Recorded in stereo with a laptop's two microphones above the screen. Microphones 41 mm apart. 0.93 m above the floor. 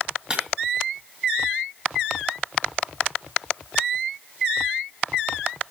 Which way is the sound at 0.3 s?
20° right (ahead or behind).